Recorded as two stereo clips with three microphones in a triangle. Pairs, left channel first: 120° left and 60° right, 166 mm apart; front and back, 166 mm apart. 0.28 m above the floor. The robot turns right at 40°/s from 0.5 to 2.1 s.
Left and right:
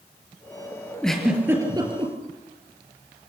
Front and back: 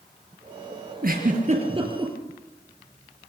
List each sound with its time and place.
1.0 s a giggle: 155° right, 5.5 m; by 2.1 s 110° right, 5.5 m